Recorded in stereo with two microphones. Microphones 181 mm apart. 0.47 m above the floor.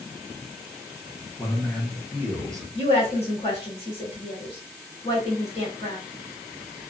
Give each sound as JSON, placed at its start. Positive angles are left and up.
{"t": 1.4, "sound": "a man speaking", "side_deg": 15, "distance_m": 0.7}
{"t": 2.8, "sound": "a woman speaking", "side_deg": 30, "distance_m": 1.5}